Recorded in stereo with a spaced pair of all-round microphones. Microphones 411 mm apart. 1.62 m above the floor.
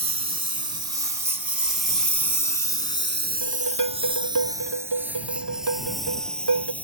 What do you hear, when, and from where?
0.0 s a lawn mower: 55° right (ahead or behind); by 6.8 s 5° left (ahead or behind)
3.4 s dishes clattering: 70° right (ahead or behind)